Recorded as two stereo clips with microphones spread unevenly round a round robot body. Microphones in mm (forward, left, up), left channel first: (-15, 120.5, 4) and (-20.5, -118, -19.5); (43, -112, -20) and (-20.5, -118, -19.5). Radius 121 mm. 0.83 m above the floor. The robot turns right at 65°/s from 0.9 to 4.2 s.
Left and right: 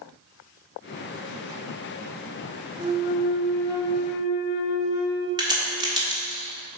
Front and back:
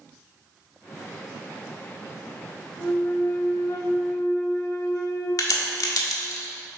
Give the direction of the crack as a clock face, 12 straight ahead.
1 o'clock.